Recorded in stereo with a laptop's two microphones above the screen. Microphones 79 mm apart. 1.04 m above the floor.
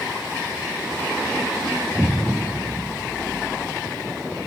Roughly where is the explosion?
Right.